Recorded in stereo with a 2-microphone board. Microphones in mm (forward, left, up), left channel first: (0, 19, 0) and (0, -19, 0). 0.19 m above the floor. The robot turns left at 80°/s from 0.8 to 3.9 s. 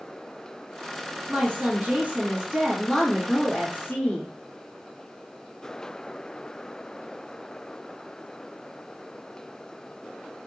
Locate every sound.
1.3 s a woman speaking: 50° right, 1.9 m; by 4.3 s 105° left, 1.9 m